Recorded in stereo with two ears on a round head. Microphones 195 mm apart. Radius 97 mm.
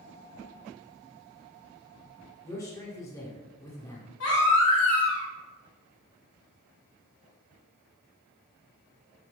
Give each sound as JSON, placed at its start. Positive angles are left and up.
{"t": 2.4, "sound": "a man speaking", "side_deg": 15, "distance_m": 1.3}
{"t": 4.2, "sound": "a baby crying", "side_deg": 75, "distance_m": 2.5}